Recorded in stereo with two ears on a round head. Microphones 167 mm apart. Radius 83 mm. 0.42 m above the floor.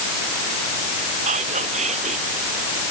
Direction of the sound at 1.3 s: 40° right (ahead or behind).